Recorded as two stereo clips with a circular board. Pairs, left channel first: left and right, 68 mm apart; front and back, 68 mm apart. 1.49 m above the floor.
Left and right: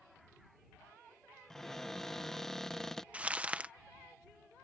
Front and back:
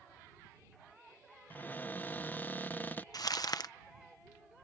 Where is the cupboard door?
10° left.